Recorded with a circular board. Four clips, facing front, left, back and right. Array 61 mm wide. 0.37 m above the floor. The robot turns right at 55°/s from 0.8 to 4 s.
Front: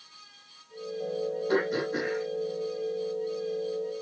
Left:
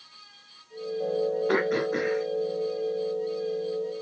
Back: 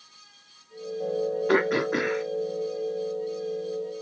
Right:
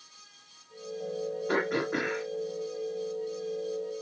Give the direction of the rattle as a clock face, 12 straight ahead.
No rattle in this recording.